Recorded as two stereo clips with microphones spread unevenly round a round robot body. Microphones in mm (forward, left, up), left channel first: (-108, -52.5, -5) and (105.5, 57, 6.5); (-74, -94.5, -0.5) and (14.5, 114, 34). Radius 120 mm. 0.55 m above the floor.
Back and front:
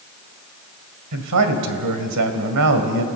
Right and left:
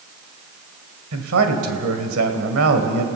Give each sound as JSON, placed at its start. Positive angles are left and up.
{"t": 1.1, "sound": "a man speaking", "azimuth_deg": 35, "distance_m": 2.5}